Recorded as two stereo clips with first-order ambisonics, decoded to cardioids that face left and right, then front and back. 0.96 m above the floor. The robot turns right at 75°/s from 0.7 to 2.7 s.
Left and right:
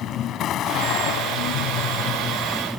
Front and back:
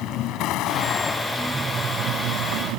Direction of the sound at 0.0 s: 35° left.